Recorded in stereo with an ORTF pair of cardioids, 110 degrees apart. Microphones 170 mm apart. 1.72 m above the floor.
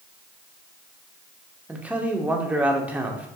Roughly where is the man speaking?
Ahead.